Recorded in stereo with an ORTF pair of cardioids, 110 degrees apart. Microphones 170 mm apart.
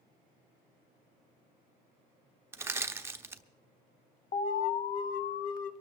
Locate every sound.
2.5 s crushing: 15° right, 0.8 m
4.3 s an alarm: 55° left, 1.0 m